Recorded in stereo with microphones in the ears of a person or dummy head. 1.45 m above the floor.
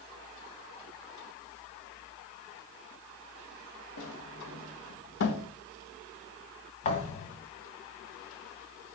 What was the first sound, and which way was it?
A sliding door, 70° left (ahead or behind).